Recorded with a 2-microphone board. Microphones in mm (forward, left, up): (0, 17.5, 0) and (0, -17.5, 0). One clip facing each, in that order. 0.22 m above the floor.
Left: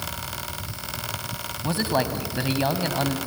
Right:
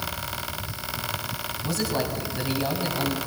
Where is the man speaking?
30° left (ahead or behind), 1.8 m.